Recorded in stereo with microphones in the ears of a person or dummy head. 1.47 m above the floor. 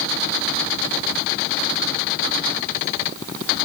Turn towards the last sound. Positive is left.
No sound to turn to.